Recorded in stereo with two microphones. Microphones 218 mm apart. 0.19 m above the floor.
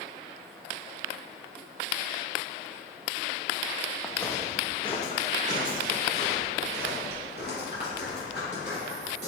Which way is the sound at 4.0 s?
Centre (ahead or behind).